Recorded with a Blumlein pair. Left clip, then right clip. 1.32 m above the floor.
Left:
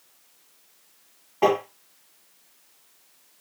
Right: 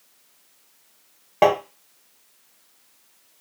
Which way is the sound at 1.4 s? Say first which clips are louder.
Right 3 dB; 40° right.